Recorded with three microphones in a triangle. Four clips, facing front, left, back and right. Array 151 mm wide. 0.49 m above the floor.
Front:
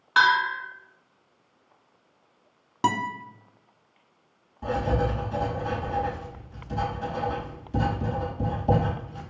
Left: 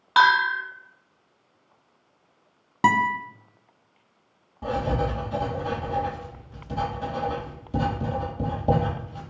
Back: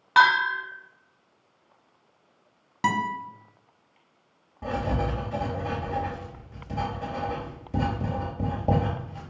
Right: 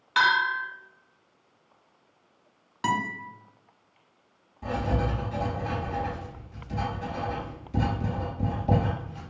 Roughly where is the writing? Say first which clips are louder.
Left 3 dB, front 2 dB; behind left.